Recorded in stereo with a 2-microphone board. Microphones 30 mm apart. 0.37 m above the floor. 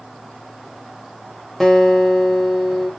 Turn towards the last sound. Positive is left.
turn(degrees=5)  # may be behind; listen again after turning